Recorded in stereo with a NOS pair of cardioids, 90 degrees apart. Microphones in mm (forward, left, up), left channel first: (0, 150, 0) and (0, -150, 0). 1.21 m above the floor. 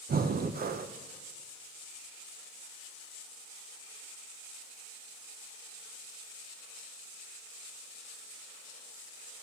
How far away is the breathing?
About 0.7 m.